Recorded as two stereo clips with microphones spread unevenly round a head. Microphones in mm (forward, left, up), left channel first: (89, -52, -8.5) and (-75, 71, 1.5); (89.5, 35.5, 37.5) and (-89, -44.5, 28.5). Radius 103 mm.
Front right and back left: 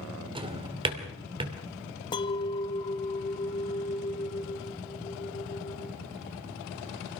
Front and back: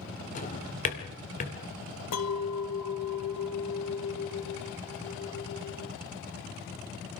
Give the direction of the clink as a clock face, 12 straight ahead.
11 o'clock.